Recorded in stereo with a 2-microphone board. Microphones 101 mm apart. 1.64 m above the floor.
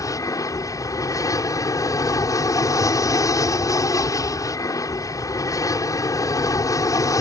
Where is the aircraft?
35° left (ahead or behind).